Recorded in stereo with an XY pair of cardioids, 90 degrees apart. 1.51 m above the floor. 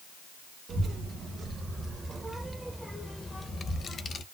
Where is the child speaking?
60° right, 1.5 m; by 4.2 s 65° left, 1.1 m.